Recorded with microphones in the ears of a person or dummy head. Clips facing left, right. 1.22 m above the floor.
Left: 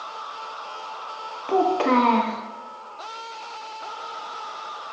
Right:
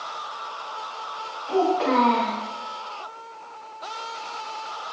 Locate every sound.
1.5 s a child speaking: 50° left (ahead or behind), 0.5 m